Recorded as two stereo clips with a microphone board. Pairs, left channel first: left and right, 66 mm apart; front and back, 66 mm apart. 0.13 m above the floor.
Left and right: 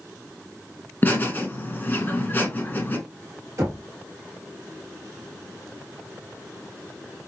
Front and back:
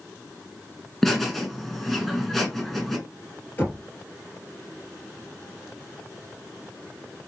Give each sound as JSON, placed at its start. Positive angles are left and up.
{"t": 1.0, "sound": "laughter", "azimuth_deg": 85, "distance_m": 1.4}
{"t": 3.6, "sound": "knocking", "azimuth_deg": -55, "distance_m": 2.5}